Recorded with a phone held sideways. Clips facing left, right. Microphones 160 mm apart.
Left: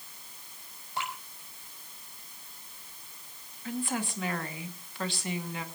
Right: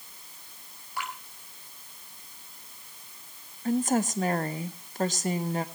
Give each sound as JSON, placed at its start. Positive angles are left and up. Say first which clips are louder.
{"t": 1.0, "sound": "dripping", "louder": "even", "side_deg": 25, "distance_m": 5.0}
{"t": 3.6, "sound": "a woman speaking", "louder": "right 8 dB", "side_deg": -40, "distance_m": 1.7}